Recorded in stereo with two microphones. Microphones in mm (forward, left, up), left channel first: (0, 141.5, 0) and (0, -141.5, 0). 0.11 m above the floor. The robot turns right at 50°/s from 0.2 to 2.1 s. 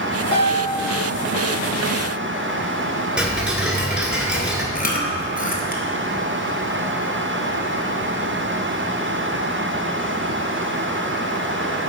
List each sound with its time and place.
0.3 s a piano: 45° right (ahead or behind), 1.7 m; by 0.8 s 65° right (ahead or behind), 1.7 m
3.2 s ticking: 5° right (ahead or behind), 1.1 m
4.8 s chewing: 30° left (ahead or behind), 1.0 m